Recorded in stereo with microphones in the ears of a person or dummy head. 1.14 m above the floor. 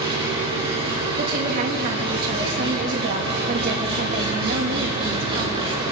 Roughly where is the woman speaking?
Right.